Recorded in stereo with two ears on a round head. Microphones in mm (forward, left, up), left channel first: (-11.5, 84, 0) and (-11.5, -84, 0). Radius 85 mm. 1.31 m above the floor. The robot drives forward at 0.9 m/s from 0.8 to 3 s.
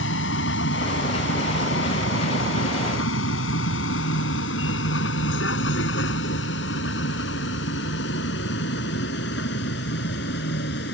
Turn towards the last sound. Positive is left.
turn(degrees=60)  # may be behind; listen again after turning